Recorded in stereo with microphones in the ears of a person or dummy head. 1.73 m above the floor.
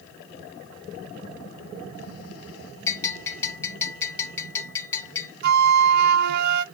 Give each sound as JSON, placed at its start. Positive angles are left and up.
{"t": 2.9, "sound": "a bell", "side_deg": 10, "distance_m": 1.4}
{"t": 5.4, "sound": "a flute", "side_deg": -60, "distance_m": 0.7}